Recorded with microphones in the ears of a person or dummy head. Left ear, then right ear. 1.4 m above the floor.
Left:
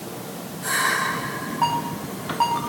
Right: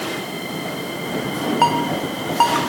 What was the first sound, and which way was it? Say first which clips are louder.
A ringtone: right 5 dB; 65° right (ahead or behind).